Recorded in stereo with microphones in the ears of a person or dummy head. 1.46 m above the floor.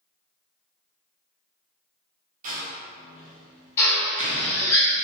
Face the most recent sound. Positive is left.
turn(degrees=10)  # may be behind; listen again after turning